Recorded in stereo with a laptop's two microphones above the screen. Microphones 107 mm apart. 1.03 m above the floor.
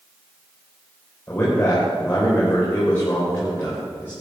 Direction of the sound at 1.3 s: 20° left (ahead or behind).